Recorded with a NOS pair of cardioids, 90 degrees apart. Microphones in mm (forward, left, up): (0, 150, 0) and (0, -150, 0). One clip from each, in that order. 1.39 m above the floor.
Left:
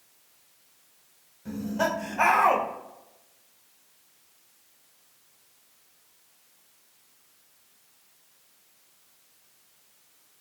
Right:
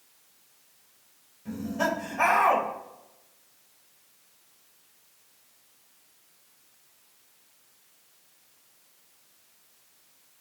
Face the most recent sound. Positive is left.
turn(degrees=15)